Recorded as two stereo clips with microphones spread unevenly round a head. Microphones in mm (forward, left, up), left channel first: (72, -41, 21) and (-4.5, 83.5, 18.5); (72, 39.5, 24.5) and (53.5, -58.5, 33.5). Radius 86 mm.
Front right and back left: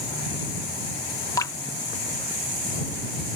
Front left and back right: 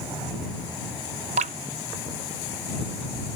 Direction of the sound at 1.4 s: 130° right.